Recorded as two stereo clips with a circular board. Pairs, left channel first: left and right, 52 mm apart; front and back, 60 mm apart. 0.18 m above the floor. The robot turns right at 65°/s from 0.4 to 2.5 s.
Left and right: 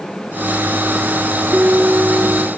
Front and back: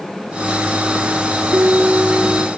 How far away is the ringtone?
About 0.6 m.